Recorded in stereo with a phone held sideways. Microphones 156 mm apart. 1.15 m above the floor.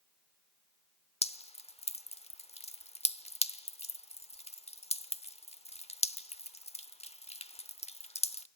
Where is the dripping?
40° left (ahead or behind), 0.9 m.